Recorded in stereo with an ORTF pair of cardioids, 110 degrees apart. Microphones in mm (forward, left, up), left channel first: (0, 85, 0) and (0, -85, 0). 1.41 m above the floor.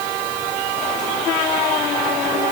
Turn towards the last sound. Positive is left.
No sound to turn to.